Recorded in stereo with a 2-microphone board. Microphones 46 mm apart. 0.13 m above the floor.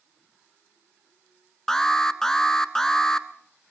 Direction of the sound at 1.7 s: 10° left (ahead or behind).